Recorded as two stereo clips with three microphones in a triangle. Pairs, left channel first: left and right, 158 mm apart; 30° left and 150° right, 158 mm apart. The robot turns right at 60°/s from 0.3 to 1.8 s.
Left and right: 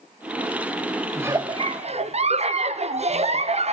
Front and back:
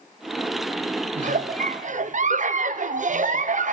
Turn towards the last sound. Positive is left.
turn(degrees=-130)